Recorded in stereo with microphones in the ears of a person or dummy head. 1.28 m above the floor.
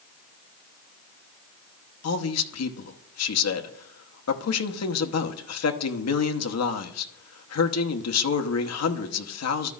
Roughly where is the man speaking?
Left.